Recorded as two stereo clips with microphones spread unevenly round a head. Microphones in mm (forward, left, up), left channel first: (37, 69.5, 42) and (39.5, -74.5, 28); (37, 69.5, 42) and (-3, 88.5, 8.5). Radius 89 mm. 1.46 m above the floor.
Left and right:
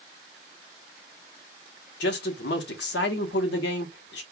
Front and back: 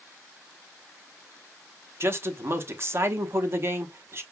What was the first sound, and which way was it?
A man speaking, 110° left.